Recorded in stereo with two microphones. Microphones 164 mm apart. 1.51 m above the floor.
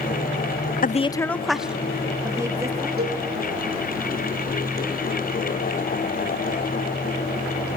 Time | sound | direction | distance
0.8 | a woman speaking | 55° left (ahead or behind) | 0.5 m
3.0 | a cowbell | 65° right (ahead or behind) | 3 m